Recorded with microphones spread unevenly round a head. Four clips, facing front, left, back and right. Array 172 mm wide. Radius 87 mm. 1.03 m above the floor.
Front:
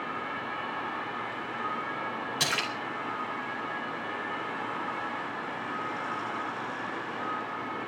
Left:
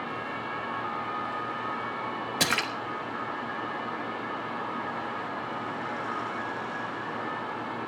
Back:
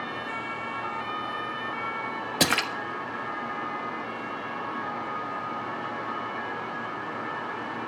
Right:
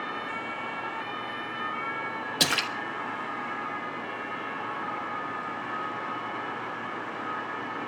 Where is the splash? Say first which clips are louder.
Even, back 8 dB; straight behind, 1.2 m.